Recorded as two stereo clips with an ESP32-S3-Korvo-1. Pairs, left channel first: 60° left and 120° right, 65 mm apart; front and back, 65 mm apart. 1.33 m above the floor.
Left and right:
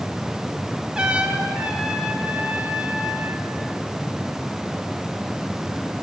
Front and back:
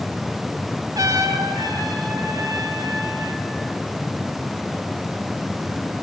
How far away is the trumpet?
About 3.5 m.